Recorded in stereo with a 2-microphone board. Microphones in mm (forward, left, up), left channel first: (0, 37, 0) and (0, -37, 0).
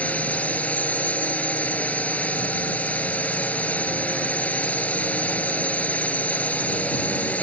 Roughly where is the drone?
Centre.